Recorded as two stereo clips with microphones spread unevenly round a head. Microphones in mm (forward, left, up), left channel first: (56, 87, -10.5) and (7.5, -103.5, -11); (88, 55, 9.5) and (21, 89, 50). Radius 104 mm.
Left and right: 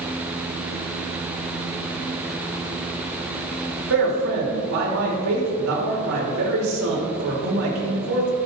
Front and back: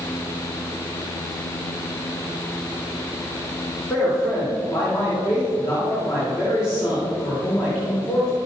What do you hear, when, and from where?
3.9 s a man speaking: 95° right, 3 m